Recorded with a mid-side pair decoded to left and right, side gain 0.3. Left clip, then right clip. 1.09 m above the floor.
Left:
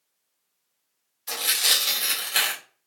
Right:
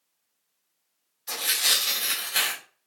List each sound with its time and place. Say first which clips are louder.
1.3 s tearing paper: left 2 dB; 40° left, 2 m